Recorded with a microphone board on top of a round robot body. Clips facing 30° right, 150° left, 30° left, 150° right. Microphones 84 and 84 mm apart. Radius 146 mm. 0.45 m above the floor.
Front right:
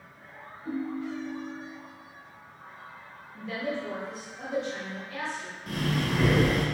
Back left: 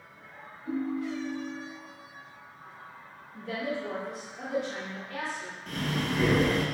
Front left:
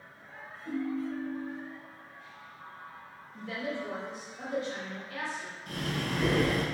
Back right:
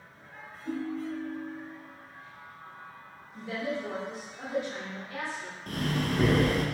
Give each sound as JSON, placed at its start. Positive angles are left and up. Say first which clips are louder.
{"t": 0.7, "sound": "a ringtone", "louder": "back left 1 dB, even", "azimuth_deg": -70, "distance_m": 1.9}
{"t": 3.3, "sound": "a woman speaking", "louder": "even, back right 2 dB", "azimuth_deg": 140, "distance_m": 1.9}
{"t": 5.7, "sound": "breathing", "louder": "front right 2 dB, back right 4 dB", "azimuth_deg": -115, "distance_m": 1.0}